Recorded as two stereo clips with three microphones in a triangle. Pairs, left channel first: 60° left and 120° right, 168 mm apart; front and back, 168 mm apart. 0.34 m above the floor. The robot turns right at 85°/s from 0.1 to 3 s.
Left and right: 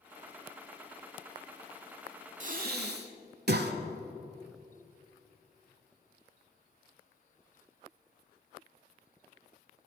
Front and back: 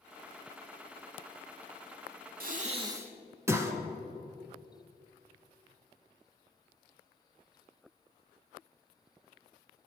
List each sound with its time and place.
2.4 s breathing: 160° right, 0.6 m; by 3.7 s 110° right, 0.6 m